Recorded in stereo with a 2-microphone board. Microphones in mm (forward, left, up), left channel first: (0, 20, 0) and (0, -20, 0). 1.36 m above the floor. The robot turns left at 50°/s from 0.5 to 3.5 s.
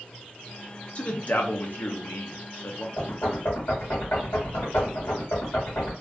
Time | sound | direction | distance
0.9 | a man speaking | 30° left (ahead or behind) | 0.7 m
3.0 | knocking | 65° left (ahead or behind) | 1.5 m